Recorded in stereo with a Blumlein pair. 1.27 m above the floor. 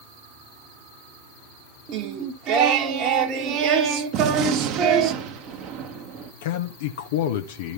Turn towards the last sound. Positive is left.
turn(degrees=55)